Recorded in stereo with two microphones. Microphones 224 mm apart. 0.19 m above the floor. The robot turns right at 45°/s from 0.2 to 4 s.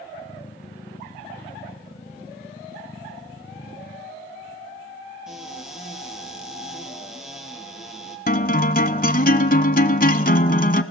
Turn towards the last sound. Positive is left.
turn(degrees=40)  # may be behind; listen again after turning